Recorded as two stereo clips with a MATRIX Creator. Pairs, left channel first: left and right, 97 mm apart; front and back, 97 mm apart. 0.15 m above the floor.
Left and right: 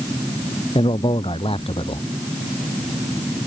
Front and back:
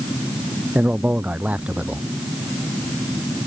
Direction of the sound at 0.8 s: 105° left.